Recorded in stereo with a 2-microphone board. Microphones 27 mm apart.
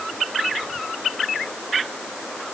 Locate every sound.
Only background noise.